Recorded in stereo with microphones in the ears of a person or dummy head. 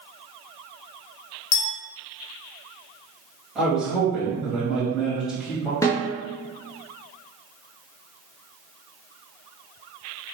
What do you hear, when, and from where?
1.5 s a clink: 80° left, 1.2 m
3.5 s a man speaking: 5° right (ahead or behind), 1.6 m
5.8 s a snare drum: 15° left (ahead or behind), 0.5 m